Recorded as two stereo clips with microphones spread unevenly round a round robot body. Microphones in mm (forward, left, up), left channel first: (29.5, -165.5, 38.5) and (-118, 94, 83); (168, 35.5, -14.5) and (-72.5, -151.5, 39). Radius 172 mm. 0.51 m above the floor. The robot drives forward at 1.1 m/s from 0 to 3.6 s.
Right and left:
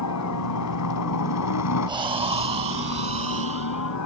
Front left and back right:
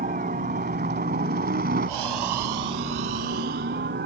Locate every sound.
0.0 s a helicopter: 80° right; by 4.1 s 85° right
1.9 s breathing: 165° right; by 4.0 s 175° right